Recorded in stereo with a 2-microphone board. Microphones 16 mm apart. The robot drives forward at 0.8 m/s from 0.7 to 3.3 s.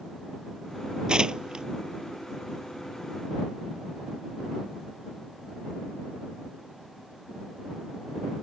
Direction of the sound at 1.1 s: 55° right (ahead or behind).